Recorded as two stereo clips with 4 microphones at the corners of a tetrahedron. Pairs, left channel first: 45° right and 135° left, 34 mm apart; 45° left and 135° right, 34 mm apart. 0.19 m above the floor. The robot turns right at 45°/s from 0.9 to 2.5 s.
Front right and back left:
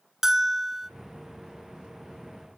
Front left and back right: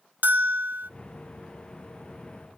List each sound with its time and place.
0.2 s a bell: 150° right, 0.5 m